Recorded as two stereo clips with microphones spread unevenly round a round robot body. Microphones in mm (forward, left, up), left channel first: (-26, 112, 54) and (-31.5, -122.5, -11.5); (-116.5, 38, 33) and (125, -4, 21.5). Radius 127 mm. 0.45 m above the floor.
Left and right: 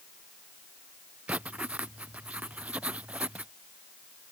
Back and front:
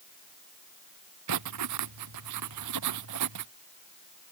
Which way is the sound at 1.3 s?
5° right.